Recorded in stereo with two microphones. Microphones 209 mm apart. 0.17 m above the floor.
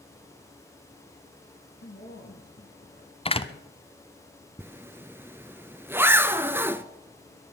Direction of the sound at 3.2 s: 25° left (ahead or behind).